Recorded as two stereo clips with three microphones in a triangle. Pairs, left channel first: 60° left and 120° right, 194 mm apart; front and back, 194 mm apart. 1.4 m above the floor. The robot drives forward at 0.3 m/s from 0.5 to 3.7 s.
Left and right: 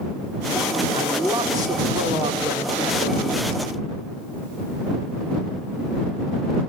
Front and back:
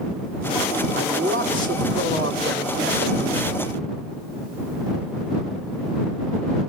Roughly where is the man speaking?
Behind.